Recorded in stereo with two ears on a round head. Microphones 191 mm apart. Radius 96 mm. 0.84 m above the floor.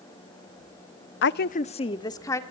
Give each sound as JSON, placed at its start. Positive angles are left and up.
{"t": 1.2, "sound": "a woman speaking", "side_deg": 55, "distance_m": 0.7}